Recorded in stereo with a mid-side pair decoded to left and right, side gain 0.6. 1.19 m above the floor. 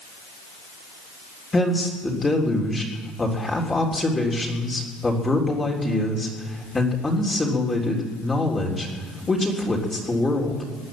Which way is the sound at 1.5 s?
15° left.